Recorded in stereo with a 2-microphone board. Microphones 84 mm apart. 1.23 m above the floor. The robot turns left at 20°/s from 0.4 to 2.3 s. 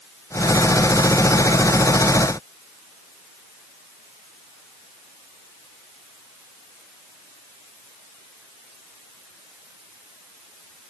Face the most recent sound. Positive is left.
No sound to turn to.